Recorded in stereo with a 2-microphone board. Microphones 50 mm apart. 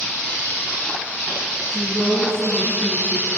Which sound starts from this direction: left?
A woman speaking, at 1.6 s.